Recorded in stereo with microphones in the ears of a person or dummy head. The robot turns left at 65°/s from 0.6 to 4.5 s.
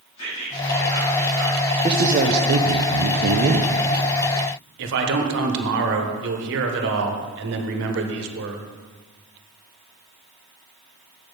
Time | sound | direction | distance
0.2 | whispering | 35° left | 3 m
1.8 | a man speaking | 25° right | 0.6 m
4.8 | a man speaking | 60° right (ahead or behind) | 1.3 m